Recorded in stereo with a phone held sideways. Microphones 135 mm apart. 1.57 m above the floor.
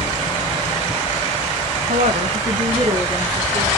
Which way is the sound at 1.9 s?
70° right (ahead or behind).